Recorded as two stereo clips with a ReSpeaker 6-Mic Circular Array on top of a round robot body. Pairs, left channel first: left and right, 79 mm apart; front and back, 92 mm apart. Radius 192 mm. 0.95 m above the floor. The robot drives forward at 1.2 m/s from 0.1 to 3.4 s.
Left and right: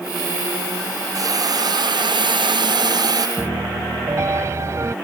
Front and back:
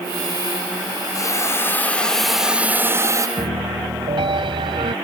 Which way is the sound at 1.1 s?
50° right.